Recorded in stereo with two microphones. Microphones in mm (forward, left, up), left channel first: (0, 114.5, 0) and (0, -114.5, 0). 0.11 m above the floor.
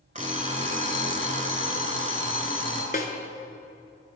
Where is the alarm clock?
35° right (ahead or behind), 0.9 m.